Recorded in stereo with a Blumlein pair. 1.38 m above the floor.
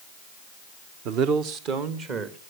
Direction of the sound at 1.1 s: 40° right.